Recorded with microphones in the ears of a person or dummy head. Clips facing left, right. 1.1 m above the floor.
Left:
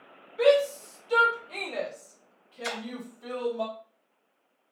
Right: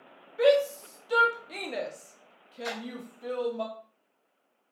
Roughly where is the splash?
Left.